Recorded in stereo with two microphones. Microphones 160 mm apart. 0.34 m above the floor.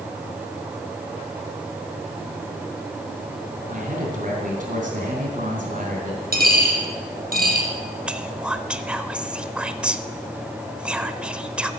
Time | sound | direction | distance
3.7 | a man speaking | 50° right (ahead or behind) | 3 m
6.3 | a dropped coin | 60° right (ahead or behind) | 4 m
8.1 | whispering | 5° right (ahead or behind) | 0.9 m